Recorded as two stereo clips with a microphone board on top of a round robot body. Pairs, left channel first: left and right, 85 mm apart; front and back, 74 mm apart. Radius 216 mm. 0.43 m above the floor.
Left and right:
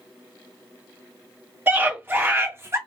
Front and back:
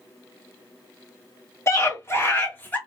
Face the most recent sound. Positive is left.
turn(degrees=-55)